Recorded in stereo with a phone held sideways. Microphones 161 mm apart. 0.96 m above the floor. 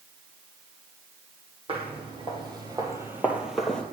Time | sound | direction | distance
1.7 | footsteps | 35° right (ahead or behind) | 1.7 m